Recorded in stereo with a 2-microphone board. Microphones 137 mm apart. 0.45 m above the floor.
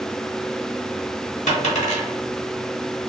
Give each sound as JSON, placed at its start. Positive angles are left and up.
{"t": 1.5, "sound": "a dropped coin", "side_deg": 60, "distance_m": 1.4}